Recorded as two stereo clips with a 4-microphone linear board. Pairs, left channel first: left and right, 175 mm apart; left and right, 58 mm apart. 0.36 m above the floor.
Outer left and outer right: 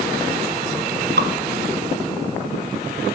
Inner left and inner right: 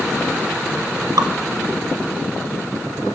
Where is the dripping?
85° right, 0.8 m.